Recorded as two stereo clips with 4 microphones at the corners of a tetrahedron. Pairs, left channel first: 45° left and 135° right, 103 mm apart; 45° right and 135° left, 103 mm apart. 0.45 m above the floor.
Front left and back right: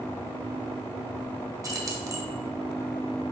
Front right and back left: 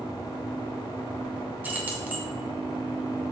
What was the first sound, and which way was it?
Keys jangling, 165° right.